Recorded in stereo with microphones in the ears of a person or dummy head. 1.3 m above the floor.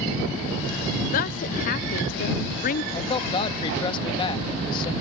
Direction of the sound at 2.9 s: 30° left (ahead or behind).